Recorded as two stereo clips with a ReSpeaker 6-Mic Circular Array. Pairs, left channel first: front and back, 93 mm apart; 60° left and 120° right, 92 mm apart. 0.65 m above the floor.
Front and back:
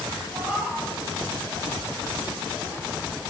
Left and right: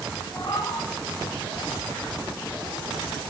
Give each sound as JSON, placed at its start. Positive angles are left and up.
{"t": 0.3, "sound": "a cat meowing", "azimuth_deg": 105, "distance_m": 2.0}